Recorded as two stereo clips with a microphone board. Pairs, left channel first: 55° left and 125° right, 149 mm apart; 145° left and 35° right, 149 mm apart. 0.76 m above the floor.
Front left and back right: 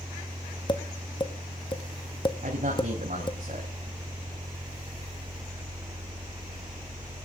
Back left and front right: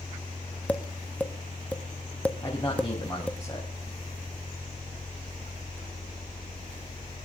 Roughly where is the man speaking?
Behind right.